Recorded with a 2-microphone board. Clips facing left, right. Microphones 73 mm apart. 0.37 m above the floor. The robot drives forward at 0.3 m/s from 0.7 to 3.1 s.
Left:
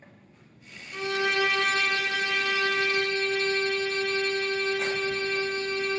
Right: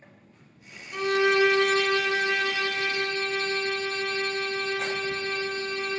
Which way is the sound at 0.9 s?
45° right (ahead or behind).